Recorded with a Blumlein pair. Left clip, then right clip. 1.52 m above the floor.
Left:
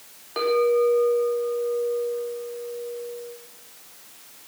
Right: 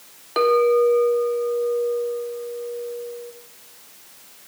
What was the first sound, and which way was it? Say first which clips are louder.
A clink: right 4 dB; 20° right.